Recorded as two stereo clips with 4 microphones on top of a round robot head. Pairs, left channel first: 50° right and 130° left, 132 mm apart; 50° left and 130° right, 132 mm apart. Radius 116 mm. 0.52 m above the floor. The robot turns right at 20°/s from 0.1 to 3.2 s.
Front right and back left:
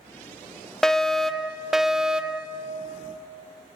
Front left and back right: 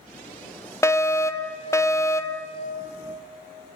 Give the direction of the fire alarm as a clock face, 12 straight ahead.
11 o'clock.